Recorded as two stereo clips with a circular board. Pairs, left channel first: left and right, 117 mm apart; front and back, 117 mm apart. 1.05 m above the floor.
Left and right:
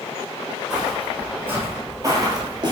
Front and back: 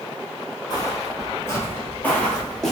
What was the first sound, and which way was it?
Footsteps, 5° right.